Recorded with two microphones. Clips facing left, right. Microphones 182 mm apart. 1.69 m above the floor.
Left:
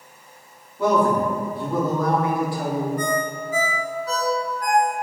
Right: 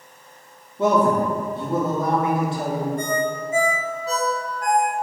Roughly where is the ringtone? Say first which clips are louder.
Right 1 dB; right.